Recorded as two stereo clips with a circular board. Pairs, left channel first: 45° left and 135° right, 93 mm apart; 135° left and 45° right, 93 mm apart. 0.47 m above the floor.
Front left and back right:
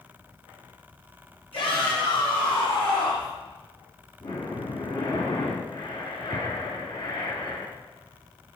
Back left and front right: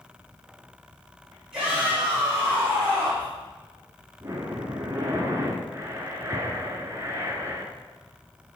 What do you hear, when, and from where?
1.5 s a shout: 35° left, 3.5 m
4.2 s breathing: 15° left, 1.4 m